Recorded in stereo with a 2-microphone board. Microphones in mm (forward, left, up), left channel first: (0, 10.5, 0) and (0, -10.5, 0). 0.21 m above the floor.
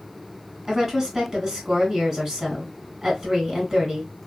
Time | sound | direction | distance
0.7 | a woman speaking | 35° right (ahead or behind) | 1.5 m